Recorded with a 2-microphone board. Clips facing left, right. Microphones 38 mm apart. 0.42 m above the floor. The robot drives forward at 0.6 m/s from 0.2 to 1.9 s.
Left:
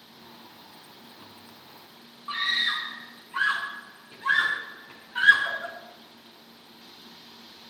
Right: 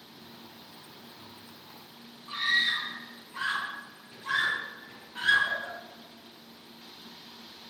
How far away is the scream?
About 5 m.